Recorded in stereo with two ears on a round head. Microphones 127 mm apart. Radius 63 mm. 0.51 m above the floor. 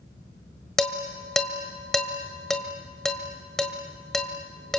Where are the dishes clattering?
5° left (ahead or behind), 1.6 m.